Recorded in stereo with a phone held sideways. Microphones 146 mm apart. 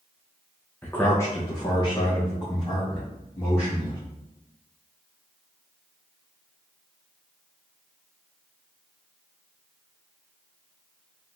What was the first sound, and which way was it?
A man speaking, 10° left (ahead or behind).